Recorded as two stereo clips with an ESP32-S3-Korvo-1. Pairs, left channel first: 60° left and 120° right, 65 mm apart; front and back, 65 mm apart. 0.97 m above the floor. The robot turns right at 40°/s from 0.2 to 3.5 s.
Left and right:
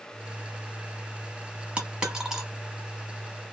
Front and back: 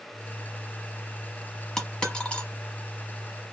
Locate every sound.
1.8 s a dropped coin: 75° right, 0.9 m; by 2.5 s 45° right, 0.9 m